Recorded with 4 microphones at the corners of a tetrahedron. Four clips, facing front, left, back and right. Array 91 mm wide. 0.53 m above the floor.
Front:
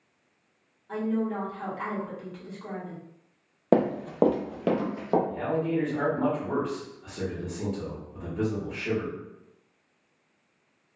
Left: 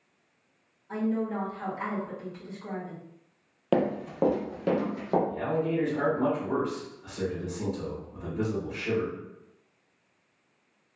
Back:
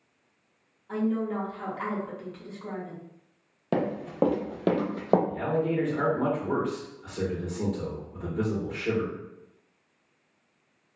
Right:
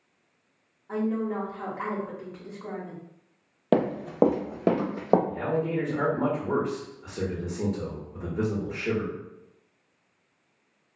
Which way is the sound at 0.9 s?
95° right.